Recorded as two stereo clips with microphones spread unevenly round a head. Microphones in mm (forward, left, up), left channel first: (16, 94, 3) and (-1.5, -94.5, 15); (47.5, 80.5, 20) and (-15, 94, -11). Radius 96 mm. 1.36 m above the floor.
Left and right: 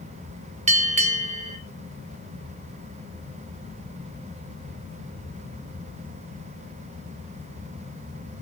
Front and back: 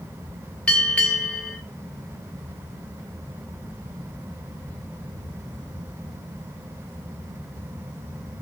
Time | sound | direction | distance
0.7 | a bell | 55° right | 1.1 m